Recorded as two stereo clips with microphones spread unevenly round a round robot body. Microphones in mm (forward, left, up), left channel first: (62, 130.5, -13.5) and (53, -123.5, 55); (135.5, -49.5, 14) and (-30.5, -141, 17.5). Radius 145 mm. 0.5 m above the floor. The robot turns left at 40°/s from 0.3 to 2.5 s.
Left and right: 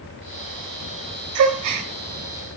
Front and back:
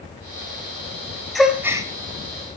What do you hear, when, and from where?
1.4 s a gasp: 60° right, 3 m; by 1.9 s 80° right, 3 m